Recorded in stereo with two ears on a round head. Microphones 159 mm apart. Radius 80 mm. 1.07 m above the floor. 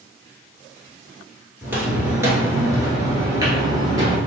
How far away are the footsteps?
About 1.1 m.